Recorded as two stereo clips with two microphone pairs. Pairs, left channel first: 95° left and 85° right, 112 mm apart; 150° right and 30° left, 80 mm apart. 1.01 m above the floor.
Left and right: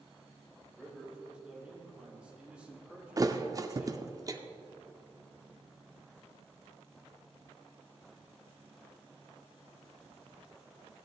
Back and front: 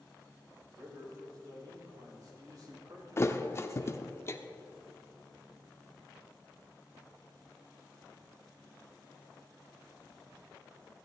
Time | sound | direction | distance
0.8 | a man speaking | 5° right | 3.5 m
3.2 | a thud | 125° right | 0.6 m